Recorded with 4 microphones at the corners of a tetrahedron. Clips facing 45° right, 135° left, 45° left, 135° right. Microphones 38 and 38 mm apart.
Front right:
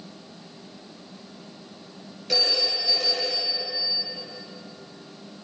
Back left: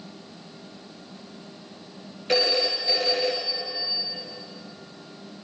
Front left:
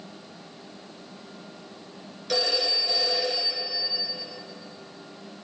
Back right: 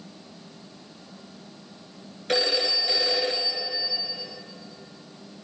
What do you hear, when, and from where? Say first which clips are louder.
2.3 s a phone ringing: back left 2 dB, back right 2 dB; 175° right, 1.8 m